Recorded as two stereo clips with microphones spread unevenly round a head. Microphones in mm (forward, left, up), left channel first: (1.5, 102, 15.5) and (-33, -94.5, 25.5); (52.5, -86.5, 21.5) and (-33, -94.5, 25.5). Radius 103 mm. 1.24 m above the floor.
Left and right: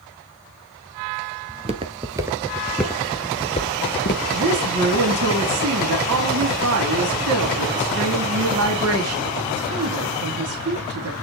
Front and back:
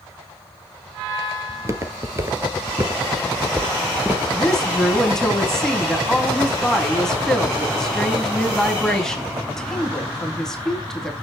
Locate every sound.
1.5 s footsteps: 140° right, 1.6 m; by 4.2 s 105° left, 1.5 m
4.3 s a woman speaking: 80° right, 2.5 m